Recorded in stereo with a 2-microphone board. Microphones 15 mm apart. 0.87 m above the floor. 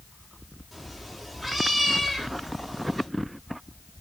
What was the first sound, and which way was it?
A cat meowing, 5° right (ahead or behind).